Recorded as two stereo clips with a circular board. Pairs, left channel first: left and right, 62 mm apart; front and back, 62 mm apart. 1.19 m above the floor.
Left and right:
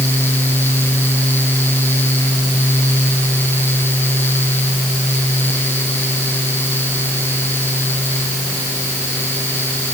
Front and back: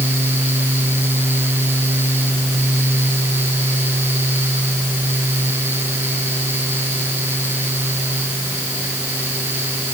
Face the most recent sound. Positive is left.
No sound to turn to.